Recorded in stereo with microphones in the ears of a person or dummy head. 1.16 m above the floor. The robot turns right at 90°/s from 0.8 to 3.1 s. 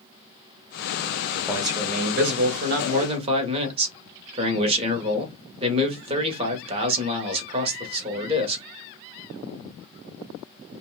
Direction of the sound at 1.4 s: 165° left.